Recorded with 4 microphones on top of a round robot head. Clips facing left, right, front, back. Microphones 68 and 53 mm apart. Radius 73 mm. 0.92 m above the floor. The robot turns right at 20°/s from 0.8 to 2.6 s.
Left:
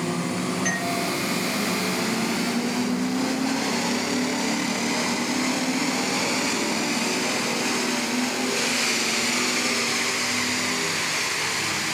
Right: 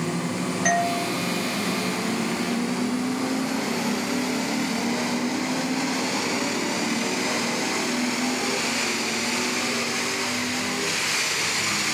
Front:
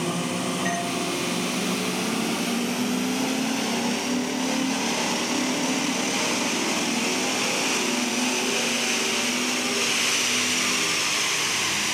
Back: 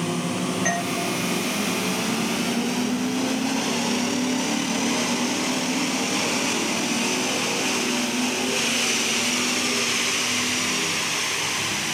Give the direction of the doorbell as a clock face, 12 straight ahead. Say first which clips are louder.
Right 4 dB, back 2 dB; 4 o'clock.